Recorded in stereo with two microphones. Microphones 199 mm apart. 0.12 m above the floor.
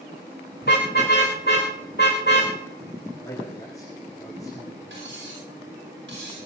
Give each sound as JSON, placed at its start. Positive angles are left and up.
{"t": 0.6, "sound": "a car horn", "side_deg": 60, "distance_m": 5.0}
{"t": 3.2, "sound": "a man speaking", "side_deg": 15, "distance_m": 8.5}
{"t": 4.9, "sound": "cutlery clinking", "side_deg": -85, "distance_m": 9.5}